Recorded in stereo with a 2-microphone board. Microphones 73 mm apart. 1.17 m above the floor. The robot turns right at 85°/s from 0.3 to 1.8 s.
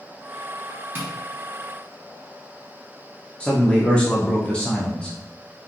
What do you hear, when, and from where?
0.9 s tapping: 30° right (ahead or behind), 0.8 m; by 1.1 s 20° right (ahead or behind), 0.8 m
3.4 s a man speaking: 15° left (ahead or behind), 0.5 m